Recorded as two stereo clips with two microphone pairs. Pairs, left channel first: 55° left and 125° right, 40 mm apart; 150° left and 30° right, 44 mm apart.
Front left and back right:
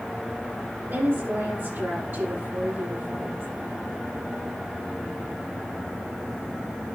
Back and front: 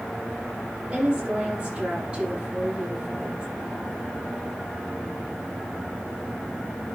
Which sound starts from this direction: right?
A woman speaking, at 0.9 s.